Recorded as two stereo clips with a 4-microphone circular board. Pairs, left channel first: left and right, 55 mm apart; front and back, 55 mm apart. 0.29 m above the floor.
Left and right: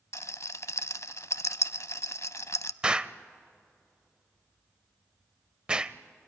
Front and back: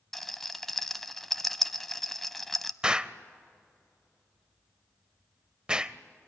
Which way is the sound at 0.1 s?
85° left.